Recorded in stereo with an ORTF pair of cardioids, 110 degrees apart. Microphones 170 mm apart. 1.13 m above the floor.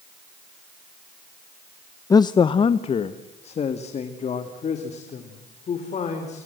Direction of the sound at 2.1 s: 20° left.